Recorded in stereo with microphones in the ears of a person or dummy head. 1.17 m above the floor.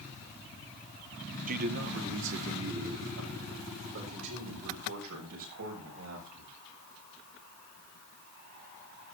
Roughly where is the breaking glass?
No breaking glass in this recording.